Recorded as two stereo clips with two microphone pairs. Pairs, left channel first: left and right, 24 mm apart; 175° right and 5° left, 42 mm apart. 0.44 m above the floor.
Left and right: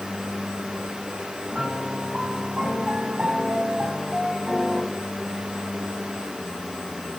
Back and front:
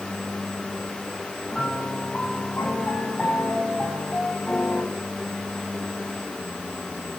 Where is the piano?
120° right, 4 m.